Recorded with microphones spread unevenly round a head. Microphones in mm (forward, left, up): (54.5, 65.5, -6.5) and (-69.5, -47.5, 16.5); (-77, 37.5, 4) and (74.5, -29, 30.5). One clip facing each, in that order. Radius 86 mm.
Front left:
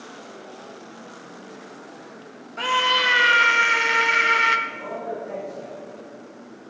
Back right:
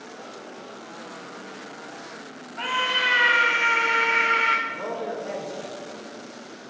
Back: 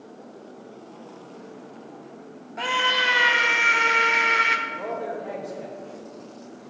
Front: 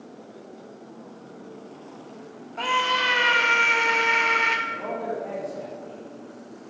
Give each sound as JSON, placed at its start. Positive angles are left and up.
{"t": 2.6, "sound": "a scream", "azimuth_deg": 75, "distance_m": 1.9}
{"t": 4.7, "sound": "a man speaking", "azimuth_deg": -130, "distance_m": 4.5}